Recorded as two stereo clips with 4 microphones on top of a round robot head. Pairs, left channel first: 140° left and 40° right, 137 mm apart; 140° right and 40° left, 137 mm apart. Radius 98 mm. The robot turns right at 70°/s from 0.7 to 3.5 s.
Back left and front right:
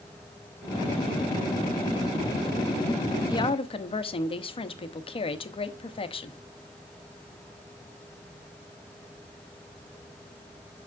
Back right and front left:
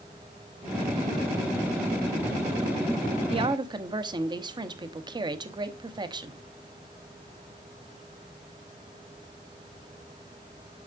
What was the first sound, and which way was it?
A woman speaking, 80° left.